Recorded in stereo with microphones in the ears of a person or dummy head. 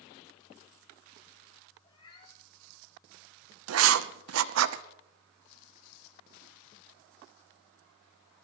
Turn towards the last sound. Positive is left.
turn(degrees=-75)  # may be behind; listen again after turning